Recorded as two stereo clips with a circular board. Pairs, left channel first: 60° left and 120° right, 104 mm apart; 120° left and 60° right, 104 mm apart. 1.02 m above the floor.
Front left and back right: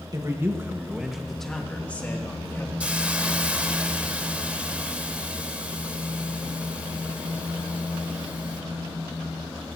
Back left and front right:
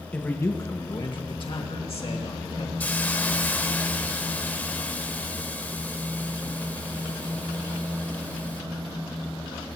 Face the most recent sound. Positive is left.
turn(degrees=175)